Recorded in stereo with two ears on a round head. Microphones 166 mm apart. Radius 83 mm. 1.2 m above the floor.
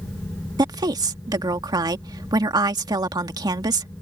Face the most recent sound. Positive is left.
turn(degrees=-20)  # may be behind; listen again after turning